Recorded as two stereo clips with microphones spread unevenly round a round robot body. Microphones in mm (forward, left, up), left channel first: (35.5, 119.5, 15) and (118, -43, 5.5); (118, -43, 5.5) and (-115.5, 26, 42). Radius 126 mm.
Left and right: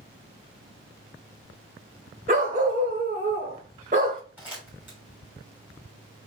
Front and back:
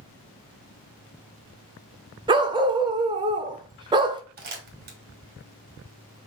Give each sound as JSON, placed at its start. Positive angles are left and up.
{"t": 2.3, "sound": "a dog barking", "azimuth_deg": -125, "distance_m": 0.5}
{"t": 4.4, "sound": "crumpling", "azimuth_deg": -145, "distance_m": 1.5}